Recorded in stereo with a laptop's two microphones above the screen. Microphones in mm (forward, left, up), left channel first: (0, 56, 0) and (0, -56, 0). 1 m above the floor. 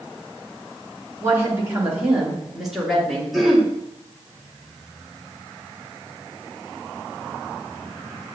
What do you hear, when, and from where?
1.2 s a woman speaking: 25° right (ahead or behind), 1.9 m; by 3.2 s 5° left (ahead or behind), 2 m
3.3 s throat clearing: centre (ahead or behind), 1.3 m